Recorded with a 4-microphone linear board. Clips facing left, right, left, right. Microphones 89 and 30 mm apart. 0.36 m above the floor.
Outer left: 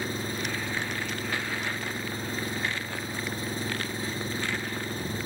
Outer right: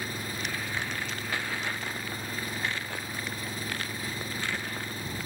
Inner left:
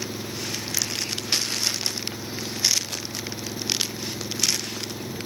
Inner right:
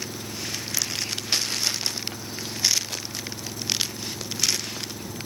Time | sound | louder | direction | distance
0.0 | an engine running | outer left 3 dB, inner left 2 dB | 25° left (ahead or behind) | ?